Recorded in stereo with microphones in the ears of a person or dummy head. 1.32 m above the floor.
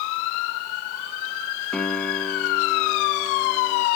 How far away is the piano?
About 1.3 m.